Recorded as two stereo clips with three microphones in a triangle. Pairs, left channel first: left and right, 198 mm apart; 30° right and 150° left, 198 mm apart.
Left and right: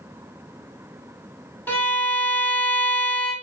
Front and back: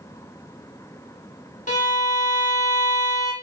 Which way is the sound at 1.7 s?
10° left.